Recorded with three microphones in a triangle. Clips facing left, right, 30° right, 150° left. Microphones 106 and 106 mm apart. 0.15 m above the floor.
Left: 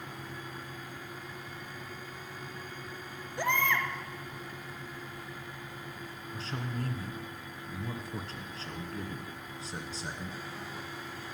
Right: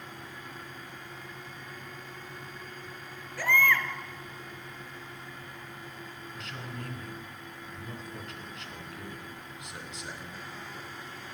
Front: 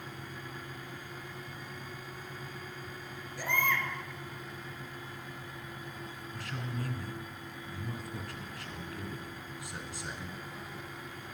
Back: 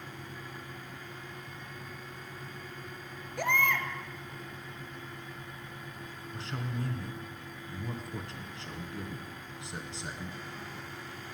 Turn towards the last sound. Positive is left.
turn(degrees=110)